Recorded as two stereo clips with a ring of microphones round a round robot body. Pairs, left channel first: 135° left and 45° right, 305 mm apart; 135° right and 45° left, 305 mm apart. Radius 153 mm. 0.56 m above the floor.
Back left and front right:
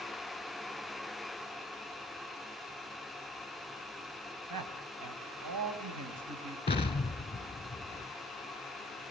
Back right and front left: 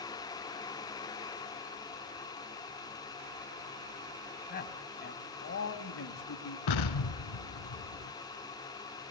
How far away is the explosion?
About 1.6 m.